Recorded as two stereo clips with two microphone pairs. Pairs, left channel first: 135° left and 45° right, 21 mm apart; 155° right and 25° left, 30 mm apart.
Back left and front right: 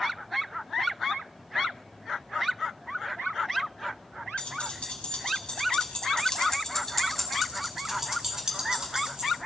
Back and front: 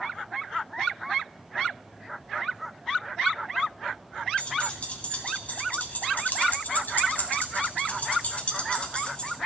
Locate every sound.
4.4 s keys jangling: 155° left, 2.0 m; by 9.4 s 95° right, 1.9 m